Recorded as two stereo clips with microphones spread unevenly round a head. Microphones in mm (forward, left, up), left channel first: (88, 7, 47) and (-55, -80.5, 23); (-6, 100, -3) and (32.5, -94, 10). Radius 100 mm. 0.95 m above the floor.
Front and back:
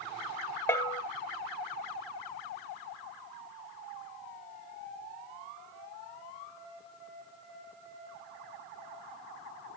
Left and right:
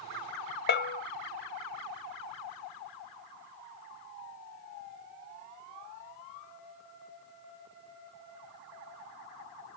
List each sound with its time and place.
0.7 s a bell: 95° left, 0.8 m